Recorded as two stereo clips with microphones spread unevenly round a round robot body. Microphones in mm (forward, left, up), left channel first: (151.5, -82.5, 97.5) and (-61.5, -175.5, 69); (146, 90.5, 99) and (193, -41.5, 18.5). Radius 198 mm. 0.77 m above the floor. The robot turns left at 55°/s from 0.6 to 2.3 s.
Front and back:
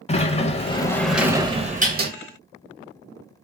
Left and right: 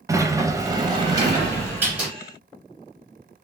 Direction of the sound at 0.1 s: 45° right.